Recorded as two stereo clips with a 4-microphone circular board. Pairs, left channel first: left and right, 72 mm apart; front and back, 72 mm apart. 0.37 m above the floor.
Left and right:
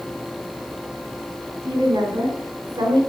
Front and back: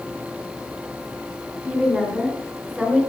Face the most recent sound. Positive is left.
turn(degrees=-85)